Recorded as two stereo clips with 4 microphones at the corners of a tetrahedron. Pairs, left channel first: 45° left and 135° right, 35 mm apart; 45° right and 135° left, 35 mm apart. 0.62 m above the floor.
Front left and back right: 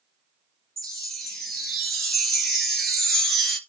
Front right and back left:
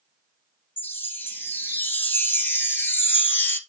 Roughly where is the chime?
Ahead right.